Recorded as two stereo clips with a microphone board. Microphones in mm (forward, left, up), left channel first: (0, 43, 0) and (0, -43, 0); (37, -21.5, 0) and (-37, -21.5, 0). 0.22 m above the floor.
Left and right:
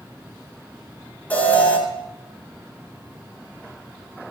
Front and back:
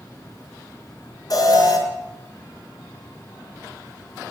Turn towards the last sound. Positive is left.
turn(degrees=20)